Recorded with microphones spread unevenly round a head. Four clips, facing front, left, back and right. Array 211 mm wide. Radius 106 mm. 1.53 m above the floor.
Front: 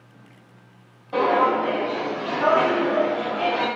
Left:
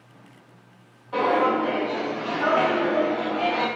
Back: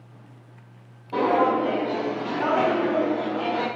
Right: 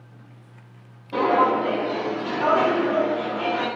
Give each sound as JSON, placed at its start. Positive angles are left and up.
{"t": 1.1, "sound": "footsteps", "azimuth_deg": -140, "distance_m": 1.8}